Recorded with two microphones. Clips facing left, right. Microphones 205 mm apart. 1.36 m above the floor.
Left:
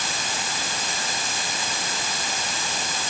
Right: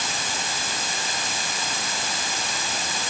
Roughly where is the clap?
No clap in this recording.